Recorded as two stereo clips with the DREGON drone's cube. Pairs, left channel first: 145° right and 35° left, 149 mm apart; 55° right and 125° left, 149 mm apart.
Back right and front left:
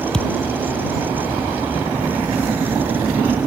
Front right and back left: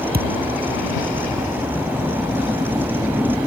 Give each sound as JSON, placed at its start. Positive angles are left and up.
{"t": 0.1, "sound": "a thud", "azimuth_deg": 130}